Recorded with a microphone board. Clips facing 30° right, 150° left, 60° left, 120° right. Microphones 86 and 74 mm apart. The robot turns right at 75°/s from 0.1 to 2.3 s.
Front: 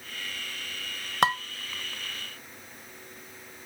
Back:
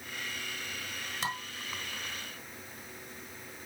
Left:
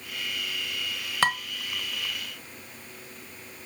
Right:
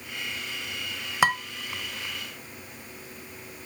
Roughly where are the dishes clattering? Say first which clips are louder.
Front 13 dB, right 2 dB; ahead right.